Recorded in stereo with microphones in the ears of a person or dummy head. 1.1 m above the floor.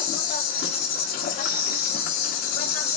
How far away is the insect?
About 0.7 m.